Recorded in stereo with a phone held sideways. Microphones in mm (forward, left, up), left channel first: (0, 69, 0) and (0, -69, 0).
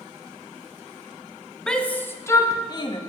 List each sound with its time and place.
1.7 s a shout: 5° left (ahead or behind), 1.2 m; by 3.0 s 35° left (ahead or behind), 1.4 m